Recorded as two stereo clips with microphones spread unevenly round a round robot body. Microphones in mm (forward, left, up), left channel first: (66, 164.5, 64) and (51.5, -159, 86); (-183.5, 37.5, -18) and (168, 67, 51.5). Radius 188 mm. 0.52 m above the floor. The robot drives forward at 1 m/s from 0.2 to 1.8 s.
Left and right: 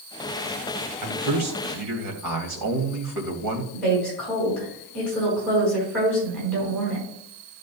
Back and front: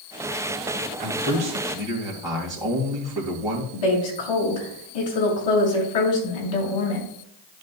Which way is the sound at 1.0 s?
65° right.